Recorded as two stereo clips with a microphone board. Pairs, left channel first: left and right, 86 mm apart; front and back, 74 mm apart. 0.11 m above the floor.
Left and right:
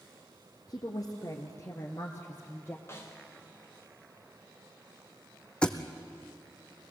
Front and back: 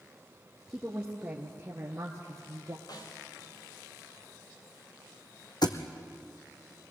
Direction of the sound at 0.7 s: 100° left.